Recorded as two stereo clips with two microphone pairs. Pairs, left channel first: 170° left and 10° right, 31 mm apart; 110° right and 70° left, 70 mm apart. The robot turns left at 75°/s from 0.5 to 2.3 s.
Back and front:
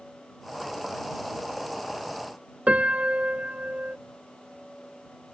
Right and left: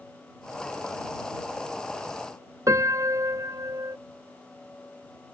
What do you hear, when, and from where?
2.7 s a piano: 35° left